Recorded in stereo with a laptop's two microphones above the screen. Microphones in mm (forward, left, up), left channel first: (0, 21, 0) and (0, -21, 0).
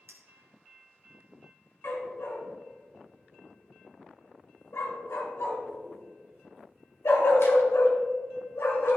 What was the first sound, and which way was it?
A clink, 80° right.